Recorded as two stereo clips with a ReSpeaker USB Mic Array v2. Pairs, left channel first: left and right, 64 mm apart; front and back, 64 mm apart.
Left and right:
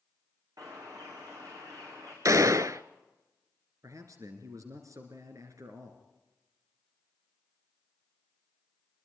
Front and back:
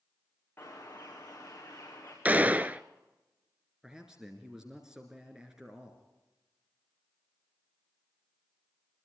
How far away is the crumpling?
No crumpling in this recording.